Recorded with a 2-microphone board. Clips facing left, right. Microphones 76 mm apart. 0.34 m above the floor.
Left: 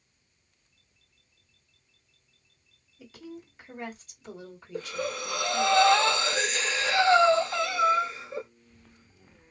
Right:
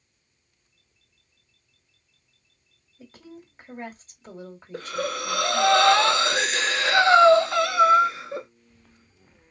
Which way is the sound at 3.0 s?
35° right (ahead or behind).